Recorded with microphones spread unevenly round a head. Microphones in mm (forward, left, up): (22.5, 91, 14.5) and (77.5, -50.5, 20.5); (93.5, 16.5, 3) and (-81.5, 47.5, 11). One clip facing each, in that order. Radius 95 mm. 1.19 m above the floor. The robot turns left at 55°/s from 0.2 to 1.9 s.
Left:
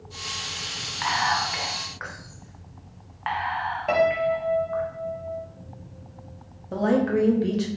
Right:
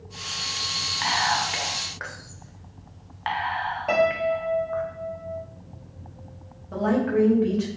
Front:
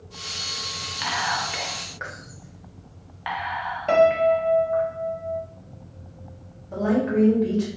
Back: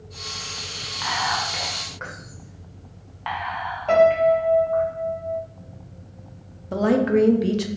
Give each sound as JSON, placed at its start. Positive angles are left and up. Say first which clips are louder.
{"t": 1.0, "sound": "whispering", "louder": "even, back 2 dB", "azimuth_deg": -30, "distance_m": 0.5}
{"t": 3.9, "sound": "a piano", "louder": "left 1 dB, back 2 dB", "azimuth_deg": 30, "distance_m": 0.7}
{"t": 6.7, "sound": "a woman speaking", "louder": "left 1 dB, back 3 dB", "azimuth_deg": 170, "distance_m": 0.5}